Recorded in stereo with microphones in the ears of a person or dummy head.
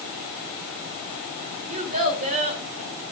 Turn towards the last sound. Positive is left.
turn(degrees=-45)  # may be behind; listen again after turning